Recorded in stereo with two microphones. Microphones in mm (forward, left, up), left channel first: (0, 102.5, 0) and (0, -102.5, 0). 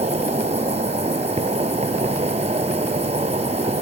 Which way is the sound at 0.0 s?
30° right (ahead or behind).